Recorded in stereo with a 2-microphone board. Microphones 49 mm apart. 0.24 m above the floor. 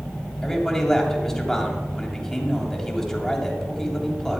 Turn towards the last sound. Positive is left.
turn(degrees=10)  # may be behind; listen again after turning